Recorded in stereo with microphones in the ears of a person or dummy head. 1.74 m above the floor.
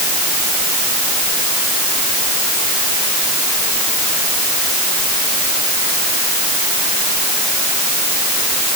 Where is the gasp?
I don't hear a gasp.